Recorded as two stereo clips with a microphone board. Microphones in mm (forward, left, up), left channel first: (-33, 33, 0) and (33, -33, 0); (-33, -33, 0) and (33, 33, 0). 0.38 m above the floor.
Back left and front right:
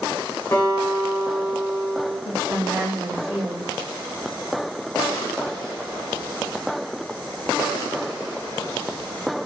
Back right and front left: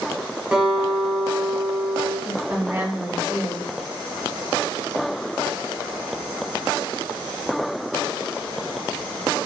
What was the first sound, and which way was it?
A guitar, 110° left.